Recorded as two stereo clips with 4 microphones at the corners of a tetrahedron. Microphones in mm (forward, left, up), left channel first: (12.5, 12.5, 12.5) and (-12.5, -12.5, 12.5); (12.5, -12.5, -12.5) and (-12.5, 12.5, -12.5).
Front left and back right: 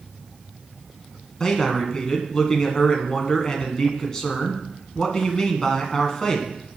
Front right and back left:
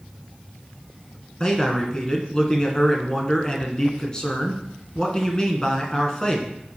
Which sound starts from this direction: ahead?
A man speaking, at 1.4 s.